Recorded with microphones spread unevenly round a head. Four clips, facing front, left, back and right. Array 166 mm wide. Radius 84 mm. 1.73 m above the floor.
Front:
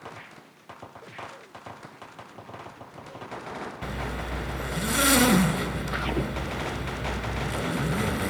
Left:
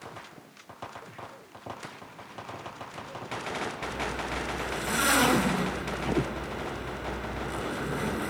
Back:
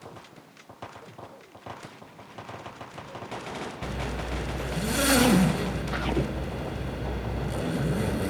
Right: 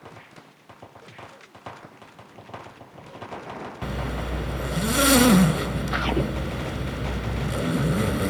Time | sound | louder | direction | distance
3.8 | a zipper | right 2 dB, even | 95° right | 2 m